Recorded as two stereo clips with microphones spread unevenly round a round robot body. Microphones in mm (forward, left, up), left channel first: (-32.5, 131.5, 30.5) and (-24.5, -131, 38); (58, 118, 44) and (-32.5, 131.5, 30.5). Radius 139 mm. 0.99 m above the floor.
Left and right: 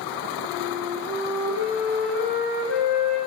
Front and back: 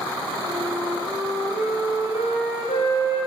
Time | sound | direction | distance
0.4 | a flute | 45° right | 2.5 m